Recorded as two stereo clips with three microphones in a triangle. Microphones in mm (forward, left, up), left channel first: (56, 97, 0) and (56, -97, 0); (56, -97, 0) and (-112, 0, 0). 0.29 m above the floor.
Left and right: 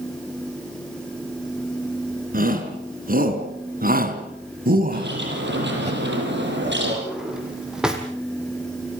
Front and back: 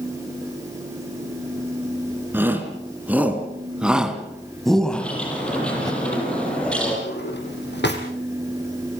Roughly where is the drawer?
Ahead.